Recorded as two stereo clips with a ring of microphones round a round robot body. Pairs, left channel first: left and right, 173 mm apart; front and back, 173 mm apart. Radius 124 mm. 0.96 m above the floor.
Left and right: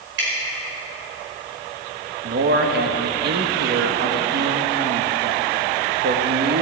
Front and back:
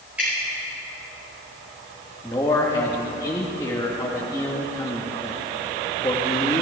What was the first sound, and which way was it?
Dripping, 95° right.